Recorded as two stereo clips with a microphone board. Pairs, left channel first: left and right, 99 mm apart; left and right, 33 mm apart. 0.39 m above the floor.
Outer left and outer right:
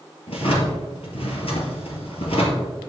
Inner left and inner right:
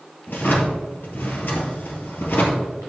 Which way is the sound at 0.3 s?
75° left (ahead or behind).